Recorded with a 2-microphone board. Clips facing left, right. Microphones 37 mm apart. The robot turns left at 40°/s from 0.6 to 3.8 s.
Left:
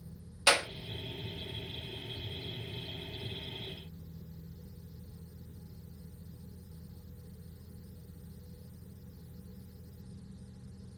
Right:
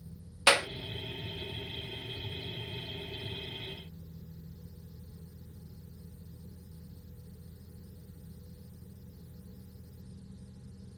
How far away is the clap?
About 0.5 m.